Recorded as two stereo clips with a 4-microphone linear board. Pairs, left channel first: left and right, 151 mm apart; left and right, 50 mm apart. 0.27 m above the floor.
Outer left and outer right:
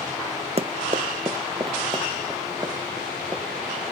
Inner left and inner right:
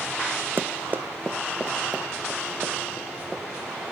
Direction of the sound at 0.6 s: 45° right (ahead or behind).